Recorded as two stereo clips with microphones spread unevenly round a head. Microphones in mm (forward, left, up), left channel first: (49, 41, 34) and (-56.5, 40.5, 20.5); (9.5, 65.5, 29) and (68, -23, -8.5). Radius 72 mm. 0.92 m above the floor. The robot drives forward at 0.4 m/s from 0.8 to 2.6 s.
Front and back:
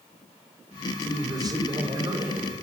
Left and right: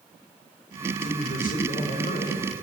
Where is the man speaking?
125° left, 3 m; by 2.5 s 135° left, 3 m.